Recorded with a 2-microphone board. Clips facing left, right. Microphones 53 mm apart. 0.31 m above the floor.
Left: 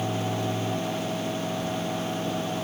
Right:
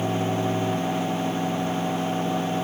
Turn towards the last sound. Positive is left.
No sound to turn to.